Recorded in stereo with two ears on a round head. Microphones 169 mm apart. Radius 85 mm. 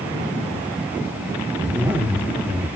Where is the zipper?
10° right (ahead or behind), 0.9 m.